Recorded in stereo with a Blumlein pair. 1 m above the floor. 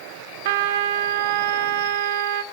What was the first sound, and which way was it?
A trumpet, 55° right.